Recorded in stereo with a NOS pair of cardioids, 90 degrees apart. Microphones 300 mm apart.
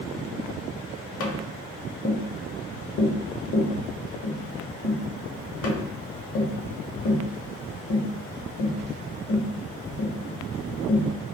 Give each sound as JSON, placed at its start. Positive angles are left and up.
{"t": 1.2, "sound": "tapping", "azimuth_deg": 55, "distance_m": 0.7}